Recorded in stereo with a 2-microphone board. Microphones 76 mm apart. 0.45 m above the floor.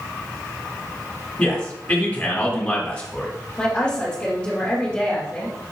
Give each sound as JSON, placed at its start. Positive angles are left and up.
{"t": 1.4, "sound": "a man speaking", "side_deg": 15, "distance_m": 1.2}
{"t": 3.6, "sound": "a woman speaking", "side_deg": 15, "distance_m": 1.9}